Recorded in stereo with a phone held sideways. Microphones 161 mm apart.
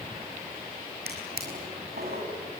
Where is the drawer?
85° right, 6 m.